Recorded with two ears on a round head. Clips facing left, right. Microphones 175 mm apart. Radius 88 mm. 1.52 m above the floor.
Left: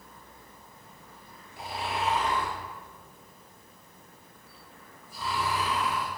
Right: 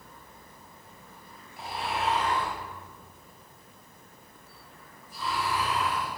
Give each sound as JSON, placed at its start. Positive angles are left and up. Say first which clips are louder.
{"t": 1.6, "sound": "snoring", "louder": "even", "side_deg": 75, "distance_m": 5.5}